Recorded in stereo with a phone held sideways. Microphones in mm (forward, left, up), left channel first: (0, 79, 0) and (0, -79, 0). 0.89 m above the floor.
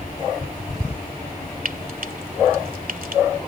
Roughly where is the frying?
Right.